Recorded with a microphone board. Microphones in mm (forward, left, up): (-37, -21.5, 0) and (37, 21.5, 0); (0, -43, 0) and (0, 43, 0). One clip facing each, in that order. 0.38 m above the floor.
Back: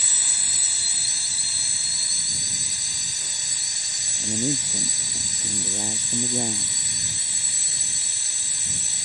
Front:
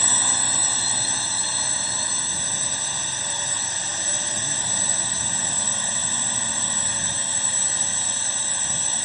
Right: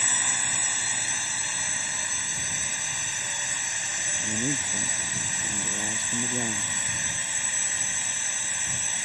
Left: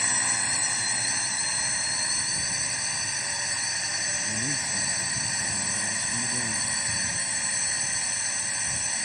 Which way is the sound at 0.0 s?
5° left.